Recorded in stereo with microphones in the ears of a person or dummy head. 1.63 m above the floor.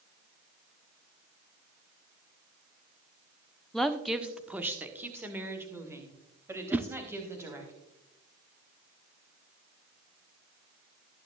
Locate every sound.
3.7 s a woman speaking: centre (ahead or behind), 0.5 m; by 7.7 s 15° right (ahead or behind), 3.5 m
6.7 s a whoosh: 15° right (ahead or behind), 0.6 m